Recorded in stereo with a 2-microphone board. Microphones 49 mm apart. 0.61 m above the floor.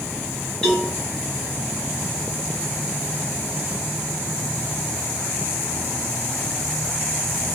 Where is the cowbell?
20° left (ahead or behind), 1.3 m.